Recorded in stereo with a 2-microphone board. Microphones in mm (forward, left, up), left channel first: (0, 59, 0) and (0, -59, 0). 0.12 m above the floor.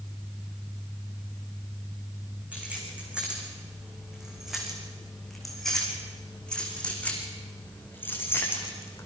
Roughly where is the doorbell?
I don't hear a doorbell.